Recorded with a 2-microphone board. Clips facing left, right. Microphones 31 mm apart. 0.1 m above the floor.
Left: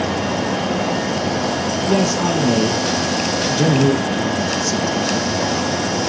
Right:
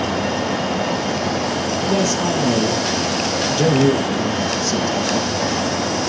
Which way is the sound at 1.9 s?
35° left (ahead or behind).